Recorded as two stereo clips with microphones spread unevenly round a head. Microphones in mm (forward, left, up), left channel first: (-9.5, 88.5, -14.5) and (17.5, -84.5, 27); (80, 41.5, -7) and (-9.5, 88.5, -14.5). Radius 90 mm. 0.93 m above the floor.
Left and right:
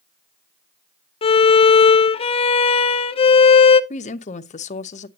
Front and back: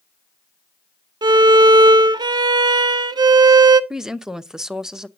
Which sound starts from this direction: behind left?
A violin, at 1.2 s.